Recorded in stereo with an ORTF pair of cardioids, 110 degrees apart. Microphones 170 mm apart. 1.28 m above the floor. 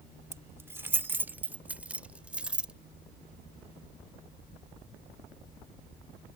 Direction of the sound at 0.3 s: 15° right.